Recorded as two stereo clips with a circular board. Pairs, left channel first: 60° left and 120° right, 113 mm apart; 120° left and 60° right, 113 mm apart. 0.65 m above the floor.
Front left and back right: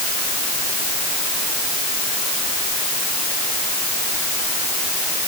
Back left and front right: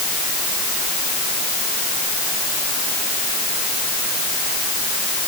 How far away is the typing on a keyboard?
I don't hear typing on a keyboard.